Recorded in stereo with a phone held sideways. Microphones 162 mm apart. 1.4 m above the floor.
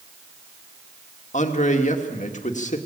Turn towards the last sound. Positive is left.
turn(degrees=50)  # may be behind; listen again after turning